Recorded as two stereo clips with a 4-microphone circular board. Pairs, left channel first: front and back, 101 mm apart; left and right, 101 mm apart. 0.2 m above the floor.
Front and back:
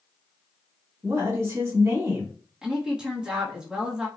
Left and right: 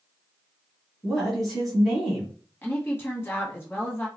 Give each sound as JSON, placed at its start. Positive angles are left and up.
{"t": 1.0, "sound": "a woman speaking", "azimuth_deg": 180, "distance_m": 1.5}
{"t": 2.6, "sound": "a woman speaking", "azimuth_deg": 110, "distance_m": 1.0}